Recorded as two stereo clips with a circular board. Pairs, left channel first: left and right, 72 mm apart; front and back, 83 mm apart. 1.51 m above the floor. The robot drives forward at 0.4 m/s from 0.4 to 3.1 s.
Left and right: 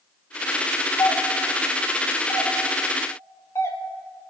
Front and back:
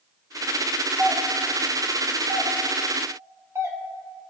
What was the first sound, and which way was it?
A doorbell, 110° left.